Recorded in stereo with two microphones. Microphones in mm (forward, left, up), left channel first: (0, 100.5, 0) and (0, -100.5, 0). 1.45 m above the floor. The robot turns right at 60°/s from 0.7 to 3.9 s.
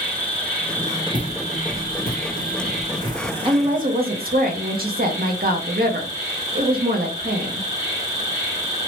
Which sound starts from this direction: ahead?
An insect, at 0.0 s.